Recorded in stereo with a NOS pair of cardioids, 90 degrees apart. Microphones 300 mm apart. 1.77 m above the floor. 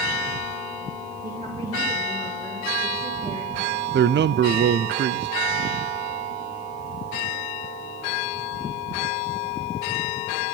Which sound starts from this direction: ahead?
A woman speaking, at 1.2 s.